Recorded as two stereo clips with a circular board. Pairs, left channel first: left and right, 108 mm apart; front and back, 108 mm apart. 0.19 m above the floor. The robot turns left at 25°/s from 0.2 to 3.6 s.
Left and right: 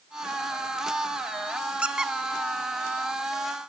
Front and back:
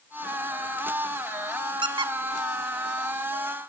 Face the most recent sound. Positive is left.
turn(degrees=150)